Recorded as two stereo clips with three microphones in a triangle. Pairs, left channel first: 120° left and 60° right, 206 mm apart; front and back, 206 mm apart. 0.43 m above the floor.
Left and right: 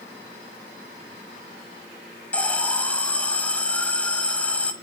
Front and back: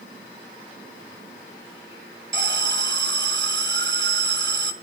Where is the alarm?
155° right, 1.6 m.